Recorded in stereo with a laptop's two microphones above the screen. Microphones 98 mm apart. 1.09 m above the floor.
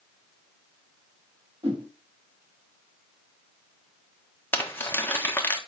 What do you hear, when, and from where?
1.6 s a whoosh: 75° right (ahead or behind), 2 m
4.5 s crumpling: 20° left (ahead or behind), 1.2 m